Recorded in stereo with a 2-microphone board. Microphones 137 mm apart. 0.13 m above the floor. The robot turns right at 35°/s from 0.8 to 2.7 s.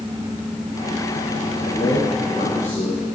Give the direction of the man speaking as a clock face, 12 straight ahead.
11 o'clock.